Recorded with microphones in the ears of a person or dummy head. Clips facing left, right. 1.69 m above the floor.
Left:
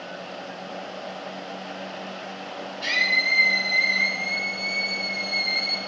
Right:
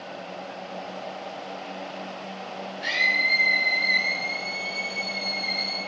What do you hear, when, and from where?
2.8 s a scream: 65° left (ahead or behind), 6 m; by 5.8 s 35° left (ahead or behind), 6 m